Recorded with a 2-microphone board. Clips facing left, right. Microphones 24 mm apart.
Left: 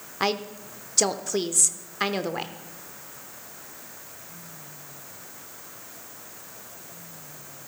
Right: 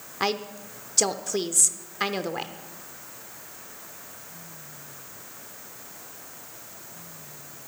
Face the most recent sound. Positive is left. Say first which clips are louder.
# left 1 dB
turn(degrees=0)  # may be behind; listen again after turning